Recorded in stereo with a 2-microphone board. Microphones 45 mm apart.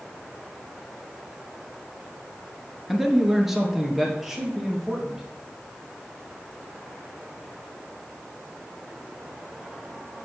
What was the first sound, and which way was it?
A man speaking, 5° right (ahead or behind).